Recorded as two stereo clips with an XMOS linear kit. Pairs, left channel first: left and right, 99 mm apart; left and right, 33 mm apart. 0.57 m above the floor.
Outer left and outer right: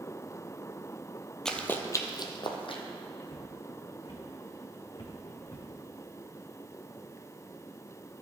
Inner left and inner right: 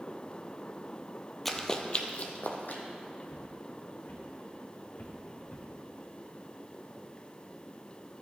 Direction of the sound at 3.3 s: 55° left (ahead or behind).